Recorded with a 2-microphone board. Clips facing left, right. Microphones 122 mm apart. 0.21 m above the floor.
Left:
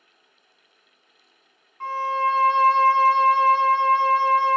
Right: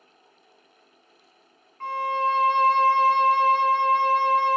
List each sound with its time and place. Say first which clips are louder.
1.8 s a violin: left 1 dB; 30° left (ahead or behind), 1.1 m